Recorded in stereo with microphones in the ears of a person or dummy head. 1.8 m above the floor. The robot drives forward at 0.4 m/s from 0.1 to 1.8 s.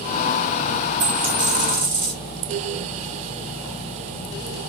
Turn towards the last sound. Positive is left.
turn(degrees=-50)  # may be behind; listen again after turning